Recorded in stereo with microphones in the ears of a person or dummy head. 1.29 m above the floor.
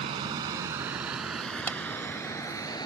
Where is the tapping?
20° left (ahead or behind).